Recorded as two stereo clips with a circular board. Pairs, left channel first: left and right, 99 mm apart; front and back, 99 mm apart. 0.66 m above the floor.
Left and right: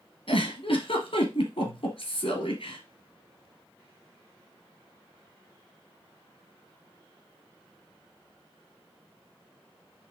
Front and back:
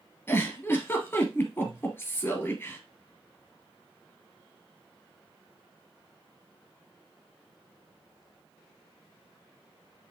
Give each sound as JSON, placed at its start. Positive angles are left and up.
{"t": 0.3, "sound": "a giggle", "azimuth_deg": 70, "distance_m": 2.0}